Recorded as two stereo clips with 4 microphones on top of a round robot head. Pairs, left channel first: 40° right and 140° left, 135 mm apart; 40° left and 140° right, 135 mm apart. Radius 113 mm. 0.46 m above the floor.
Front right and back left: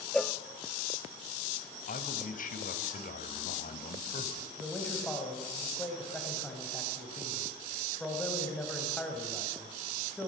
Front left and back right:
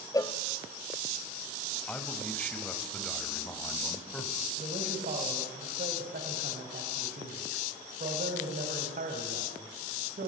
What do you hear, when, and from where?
0.1 s a cowbell: 35° left, 1.2 m
1.9 s a man speaking: 40° right, 3 m
4.6 s a man speaking: 125° right, 4 m